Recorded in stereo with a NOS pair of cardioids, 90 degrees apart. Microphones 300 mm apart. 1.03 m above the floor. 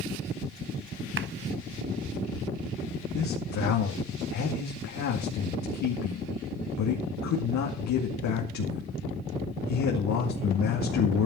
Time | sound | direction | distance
1.2 | a clap | 40° right | 0.9 m
3.1 | a man speaking | 70° left | 2.5 m